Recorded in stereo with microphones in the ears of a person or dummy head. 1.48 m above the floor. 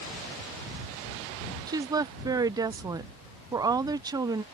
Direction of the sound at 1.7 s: 15° right (ahead or behind).